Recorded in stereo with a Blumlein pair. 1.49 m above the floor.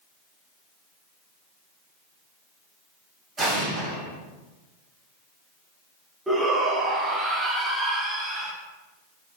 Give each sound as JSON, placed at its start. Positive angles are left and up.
{"t": 3.4, "sound": "an explosion", "azimuth_deg": -15, "distance_m": 3.0}
{"t": 6.3, "sound": "a shout", "azimuth_deg": -10, "distance_m": 1.5}